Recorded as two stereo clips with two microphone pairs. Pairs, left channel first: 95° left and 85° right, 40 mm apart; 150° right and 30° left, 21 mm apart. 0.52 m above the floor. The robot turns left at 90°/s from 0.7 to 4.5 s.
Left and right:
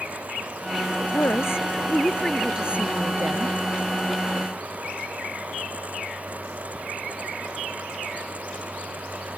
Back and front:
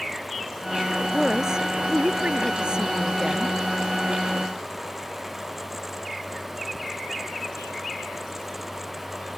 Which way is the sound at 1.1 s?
120° left.